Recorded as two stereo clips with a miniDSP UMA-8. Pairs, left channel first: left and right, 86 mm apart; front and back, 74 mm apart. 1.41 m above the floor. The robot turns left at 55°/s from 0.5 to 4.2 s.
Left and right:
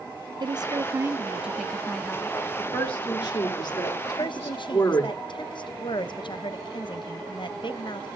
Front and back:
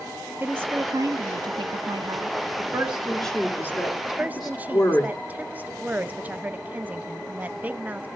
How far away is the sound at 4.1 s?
About 0.7 m.